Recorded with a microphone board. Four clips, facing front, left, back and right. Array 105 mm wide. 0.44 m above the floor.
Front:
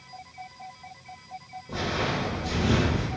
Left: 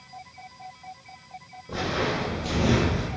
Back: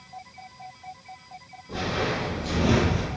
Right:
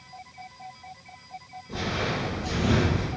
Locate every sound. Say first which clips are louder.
1.7 s footsteps: left 3 dB, back 1 dB; 75° left, 1.8 m; by 3.1 s straight behind, 0.8 m